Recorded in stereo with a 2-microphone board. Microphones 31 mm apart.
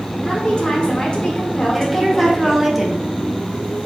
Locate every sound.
0.2 s a woman speaking: 35° left (ahead or behind), 1.1 m
1.7 s a woman speaking: centre (ahead or behind), 0.7 m